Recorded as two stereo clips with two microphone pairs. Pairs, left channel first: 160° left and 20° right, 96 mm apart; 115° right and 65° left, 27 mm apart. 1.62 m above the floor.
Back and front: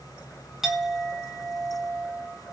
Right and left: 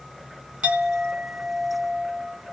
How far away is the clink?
About 0.8 m.